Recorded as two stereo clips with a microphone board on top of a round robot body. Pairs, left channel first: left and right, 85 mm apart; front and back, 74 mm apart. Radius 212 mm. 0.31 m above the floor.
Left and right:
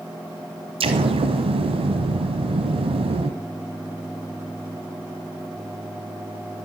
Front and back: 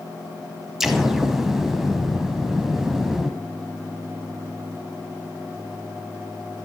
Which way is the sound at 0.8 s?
95° right.